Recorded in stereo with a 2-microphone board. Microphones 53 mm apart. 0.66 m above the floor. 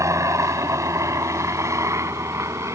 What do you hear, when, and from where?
0.0 s a helicopter: 75° right (ahead or behind); by 2.8 s 65° right (ahead or behind)